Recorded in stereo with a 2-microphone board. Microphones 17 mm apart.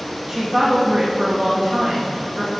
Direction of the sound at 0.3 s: 15° right (ahead or behind).